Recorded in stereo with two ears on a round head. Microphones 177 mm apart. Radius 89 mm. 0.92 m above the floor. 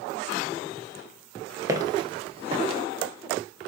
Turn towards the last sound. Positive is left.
turn(degrees=-30)  # may be behind; listen again after turning